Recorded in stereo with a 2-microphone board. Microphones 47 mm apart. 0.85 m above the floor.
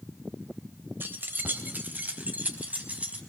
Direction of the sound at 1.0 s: 50° right (ahead or behind).